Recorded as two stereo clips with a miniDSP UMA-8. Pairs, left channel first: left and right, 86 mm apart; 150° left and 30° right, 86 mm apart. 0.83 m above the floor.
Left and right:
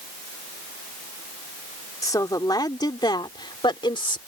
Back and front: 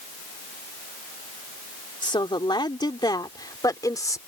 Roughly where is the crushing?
No crushing in this recording.